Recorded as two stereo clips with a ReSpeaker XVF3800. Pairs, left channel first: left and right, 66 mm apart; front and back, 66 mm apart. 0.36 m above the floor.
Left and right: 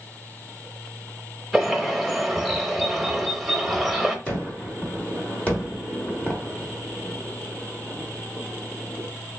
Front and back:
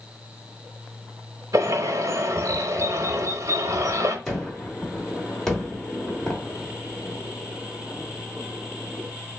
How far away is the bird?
About 0.6 m.